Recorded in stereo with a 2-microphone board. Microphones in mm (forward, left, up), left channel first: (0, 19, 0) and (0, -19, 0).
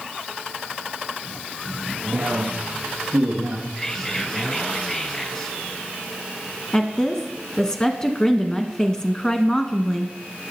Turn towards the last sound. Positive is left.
turn(degrees=20)  # may be behind; listen again after turning